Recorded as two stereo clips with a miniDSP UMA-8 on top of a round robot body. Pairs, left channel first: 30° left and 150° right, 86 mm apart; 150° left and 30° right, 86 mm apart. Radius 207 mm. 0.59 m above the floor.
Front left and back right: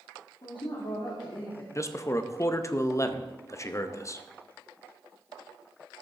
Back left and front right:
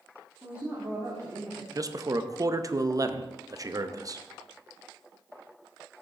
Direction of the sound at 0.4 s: 40° left.